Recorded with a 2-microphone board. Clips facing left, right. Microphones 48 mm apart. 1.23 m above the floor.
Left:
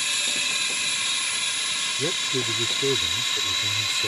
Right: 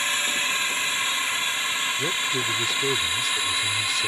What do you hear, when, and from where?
0.0 s a drone: 30° right (ahead or behind); by 4.1 s 20° right (ahead or behind)
2.0 s a man speaking: 15° left (ahead or behind)